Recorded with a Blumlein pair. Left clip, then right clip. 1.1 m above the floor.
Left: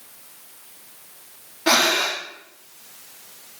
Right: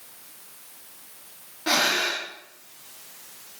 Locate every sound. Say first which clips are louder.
1.7 s breathing: left 4 dB; 70° left, 1.6 m